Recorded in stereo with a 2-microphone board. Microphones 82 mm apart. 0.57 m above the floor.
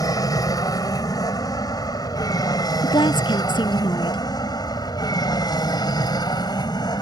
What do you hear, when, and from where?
0.0 s an aircraft: 50° left (ahead or behind); by 7.0 s 55° left (ahead or behind)
2.8 s a woman speaking: 70° left (ahead or behind)